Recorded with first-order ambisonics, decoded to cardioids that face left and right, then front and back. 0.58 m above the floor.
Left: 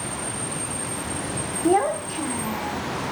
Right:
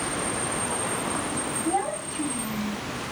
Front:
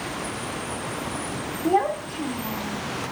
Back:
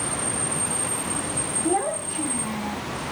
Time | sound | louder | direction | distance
1.6 | a child speaking | left 8 dB, front 4 dB | 75° left | 0.6 m